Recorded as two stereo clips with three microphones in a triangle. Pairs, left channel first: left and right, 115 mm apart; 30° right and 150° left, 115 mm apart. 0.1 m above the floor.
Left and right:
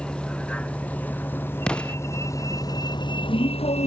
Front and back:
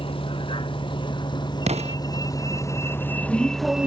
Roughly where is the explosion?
Behind.